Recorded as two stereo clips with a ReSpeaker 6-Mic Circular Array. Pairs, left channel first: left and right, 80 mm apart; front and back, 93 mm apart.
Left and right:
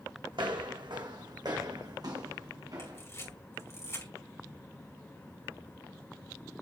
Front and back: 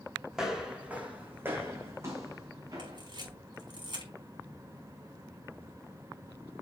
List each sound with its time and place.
0.3 s footsteps: 95° right, 2 m; by 3.0 s 130° right, 3 m
2.8 s a camera shutter: 145° left, 5 m